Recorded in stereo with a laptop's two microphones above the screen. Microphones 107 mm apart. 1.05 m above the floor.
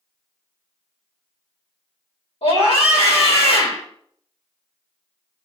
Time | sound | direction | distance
2.4 | a scream | 70° left (ahead or behind) | 3.5 m